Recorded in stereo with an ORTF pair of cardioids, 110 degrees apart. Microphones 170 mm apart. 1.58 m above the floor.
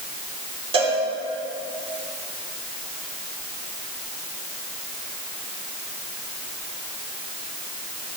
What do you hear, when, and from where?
0.7 s a cowbell: 30° right, 4.5 m